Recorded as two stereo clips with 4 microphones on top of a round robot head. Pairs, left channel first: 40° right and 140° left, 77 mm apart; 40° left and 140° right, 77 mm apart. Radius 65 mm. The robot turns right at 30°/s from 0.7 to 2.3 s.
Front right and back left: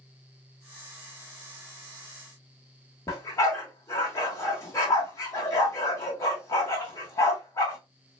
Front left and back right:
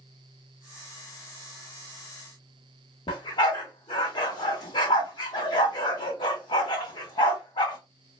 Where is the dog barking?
10° left, 1.0 m.